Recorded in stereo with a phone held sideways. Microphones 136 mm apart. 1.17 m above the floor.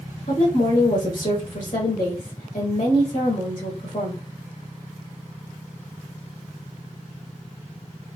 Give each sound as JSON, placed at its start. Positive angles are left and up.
{"t": 0.3, "sound": "a woman speaking", "side_deg": 70, "distance_m": 1.3}